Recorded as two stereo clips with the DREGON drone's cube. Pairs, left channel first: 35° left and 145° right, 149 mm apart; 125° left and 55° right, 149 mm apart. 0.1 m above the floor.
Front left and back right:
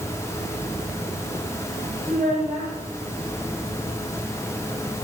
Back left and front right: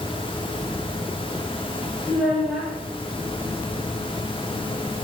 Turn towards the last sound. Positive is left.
turn(degrees=-150)